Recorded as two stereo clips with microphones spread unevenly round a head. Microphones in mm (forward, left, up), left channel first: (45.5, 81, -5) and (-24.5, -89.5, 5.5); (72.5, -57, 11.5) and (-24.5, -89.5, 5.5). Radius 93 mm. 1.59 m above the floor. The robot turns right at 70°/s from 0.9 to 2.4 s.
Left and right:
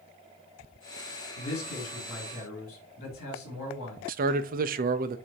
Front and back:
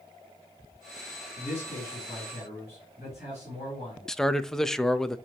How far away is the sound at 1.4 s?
About 4.5 m.